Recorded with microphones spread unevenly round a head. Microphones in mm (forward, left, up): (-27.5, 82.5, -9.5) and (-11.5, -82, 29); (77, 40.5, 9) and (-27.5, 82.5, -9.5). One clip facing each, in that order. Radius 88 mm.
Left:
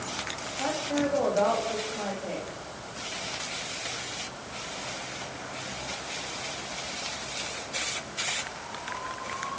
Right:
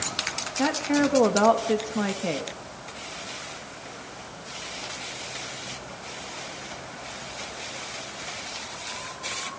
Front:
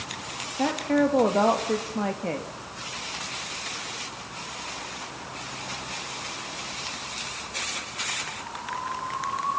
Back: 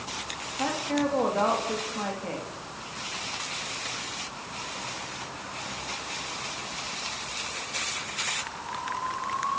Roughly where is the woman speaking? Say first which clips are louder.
Right 5 dB, front 5 dB; right.